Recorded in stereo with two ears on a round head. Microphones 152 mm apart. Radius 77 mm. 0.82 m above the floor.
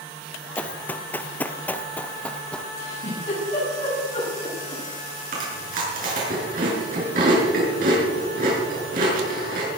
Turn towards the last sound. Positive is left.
turn(degrees=-50)  # may be behind; listen again after turning